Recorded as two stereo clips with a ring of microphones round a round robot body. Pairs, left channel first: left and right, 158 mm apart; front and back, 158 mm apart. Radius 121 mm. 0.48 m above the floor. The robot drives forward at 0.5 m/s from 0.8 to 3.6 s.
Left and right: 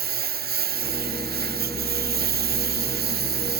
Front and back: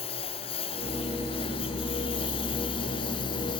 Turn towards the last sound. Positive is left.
turn(degrees=-70)